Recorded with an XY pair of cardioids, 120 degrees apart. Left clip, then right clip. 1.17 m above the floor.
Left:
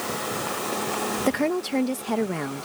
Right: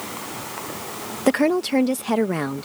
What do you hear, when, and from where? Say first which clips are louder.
1.3 s a woman speaking: right 8 dB; 30° right